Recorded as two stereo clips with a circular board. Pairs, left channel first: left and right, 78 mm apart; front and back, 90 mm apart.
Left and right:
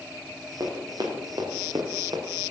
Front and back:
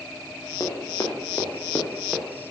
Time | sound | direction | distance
0.6 | running footsteps | 55° right | 4 m